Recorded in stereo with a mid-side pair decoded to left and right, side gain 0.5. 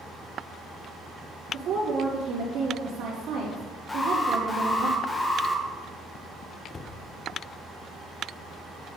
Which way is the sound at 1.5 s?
65° right.